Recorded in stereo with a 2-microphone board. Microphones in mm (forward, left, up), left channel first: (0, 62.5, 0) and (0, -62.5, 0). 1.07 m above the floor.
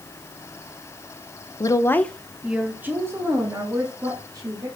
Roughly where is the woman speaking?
Left.